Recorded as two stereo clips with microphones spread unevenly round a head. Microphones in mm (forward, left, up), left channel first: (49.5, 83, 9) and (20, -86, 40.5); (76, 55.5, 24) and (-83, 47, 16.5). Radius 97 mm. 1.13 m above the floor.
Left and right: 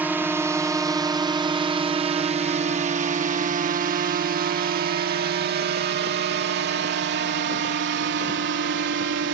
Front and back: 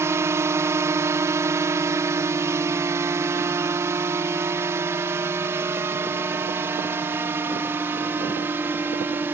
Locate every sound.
0.0 s a drone: 170° left; by 9.3 s 100° right